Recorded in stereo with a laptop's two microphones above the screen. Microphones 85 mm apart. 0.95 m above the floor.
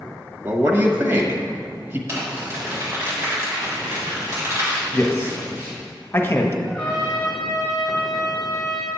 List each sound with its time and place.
0.4 s a man speaking: 30° right (ahead or behind), 1.3 m
2.1 s crumpling: 35° right (ahead or behind), 2.5 m
4.9 s a man speaking: 30° left (ahead or behind), 1.2 m
6.6 s a trumpet: centre (ahead or behind), 2.5 m